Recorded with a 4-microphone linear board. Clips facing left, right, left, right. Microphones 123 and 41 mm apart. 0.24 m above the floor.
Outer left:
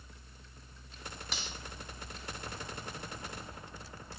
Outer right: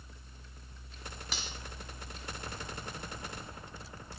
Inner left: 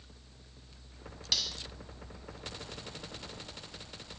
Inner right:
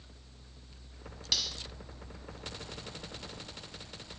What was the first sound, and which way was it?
Cutlery clinking, centre (ahead or behind).